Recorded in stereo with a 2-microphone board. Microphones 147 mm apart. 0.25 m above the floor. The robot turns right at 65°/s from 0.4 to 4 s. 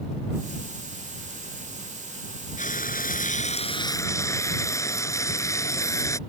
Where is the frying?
65° left; by 6.2 s 155° left.